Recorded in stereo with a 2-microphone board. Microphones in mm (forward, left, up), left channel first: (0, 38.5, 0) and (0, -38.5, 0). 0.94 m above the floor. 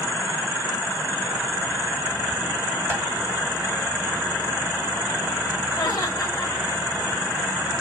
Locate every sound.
2.9 s tapping: 35° right (ahead or behind), 3 m
5.8 s laughter: 65° left (ahead or behind), 6 m